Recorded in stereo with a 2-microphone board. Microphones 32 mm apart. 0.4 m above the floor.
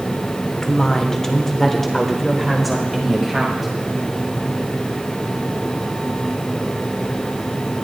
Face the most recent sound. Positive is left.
turn(degrees=-5)  # may be behind; listen again after turning